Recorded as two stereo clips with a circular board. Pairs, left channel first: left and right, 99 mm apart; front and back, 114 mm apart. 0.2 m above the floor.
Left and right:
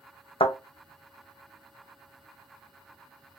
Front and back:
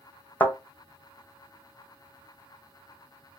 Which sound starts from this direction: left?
A thud, at 0.4 s.